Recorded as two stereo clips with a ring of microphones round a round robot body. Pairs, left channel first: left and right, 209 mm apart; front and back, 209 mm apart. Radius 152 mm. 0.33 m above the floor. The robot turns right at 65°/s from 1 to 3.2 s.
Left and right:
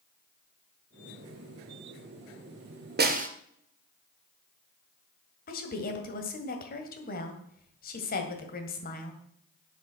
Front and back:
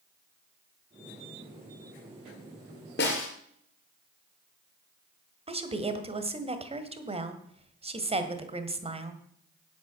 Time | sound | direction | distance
3.0 | a snare drum | 55° right | 2 m
5.5 | a woman speaking | 125° left | 1.9 m